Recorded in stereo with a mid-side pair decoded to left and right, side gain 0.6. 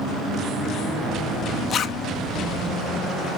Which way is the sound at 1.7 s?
45° left.